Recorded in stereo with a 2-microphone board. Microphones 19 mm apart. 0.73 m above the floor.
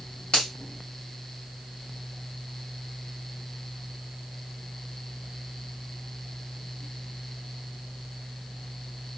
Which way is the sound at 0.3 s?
65° left (ahead or behind).